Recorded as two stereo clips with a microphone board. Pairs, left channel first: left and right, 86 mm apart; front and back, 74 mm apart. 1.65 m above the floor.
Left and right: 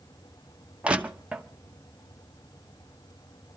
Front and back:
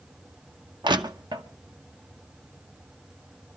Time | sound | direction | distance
0.8 | crushing | 165° right | 1.0 m